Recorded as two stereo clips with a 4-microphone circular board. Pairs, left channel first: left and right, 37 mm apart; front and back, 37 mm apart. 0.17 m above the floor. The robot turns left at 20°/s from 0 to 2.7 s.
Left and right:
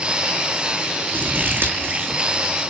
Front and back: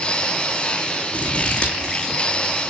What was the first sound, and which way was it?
Scissors, 55° right.